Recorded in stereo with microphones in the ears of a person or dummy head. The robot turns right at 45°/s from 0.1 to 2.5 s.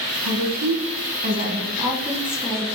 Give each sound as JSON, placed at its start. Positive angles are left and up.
{"t": 0.2, "sound": "a woman speaking", "azimuth_deg": -100, "distance_m": 1.8}